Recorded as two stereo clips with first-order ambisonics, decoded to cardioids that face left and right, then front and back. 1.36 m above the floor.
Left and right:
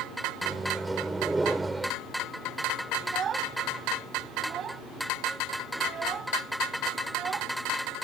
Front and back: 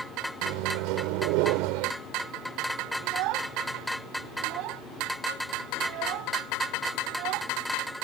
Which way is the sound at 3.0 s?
150° right.